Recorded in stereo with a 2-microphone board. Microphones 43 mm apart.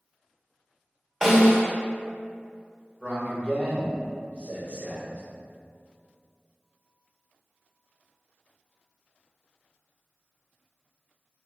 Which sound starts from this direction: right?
A man speaking, at 3.0 s.